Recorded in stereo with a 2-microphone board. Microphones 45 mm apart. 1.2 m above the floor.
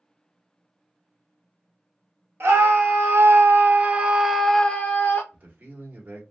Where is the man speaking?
40° right (ahead or behind), 1.9 m.